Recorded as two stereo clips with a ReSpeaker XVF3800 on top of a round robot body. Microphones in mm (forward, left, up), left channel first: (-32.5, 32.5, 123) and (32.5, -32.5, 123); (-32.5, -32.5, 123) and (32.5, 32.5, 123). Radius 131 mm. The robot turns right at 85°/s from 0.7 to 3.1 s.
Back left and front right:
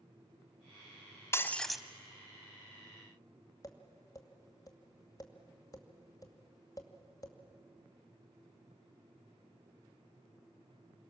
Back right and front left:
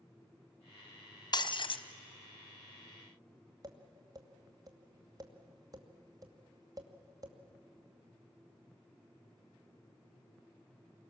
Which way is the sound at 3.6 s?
90° left.